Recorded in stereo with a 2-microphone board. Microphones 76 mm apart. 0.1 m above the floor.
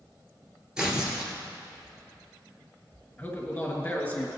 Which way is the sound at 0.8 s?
10° right (ahead or behind).